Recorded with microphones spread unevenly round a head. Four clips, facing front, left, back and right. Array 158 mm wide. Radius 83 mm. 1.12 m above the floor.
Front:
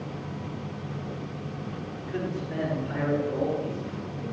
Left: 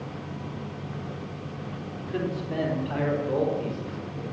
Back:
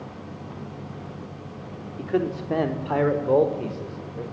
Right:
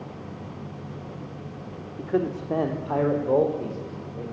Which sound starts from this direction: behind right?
A man speaking, at 2.0 s.